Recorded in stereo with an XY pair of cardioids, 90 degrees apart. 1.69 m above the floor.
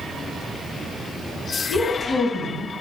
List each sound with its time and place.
1.7 s a woman speaking: 50° left, 4.5 m